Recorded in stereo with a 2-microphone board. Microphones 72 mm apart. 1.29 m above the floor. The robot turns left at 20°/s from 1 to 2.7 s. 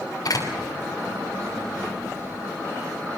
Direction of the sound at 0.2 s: 55° left (ahead or behind).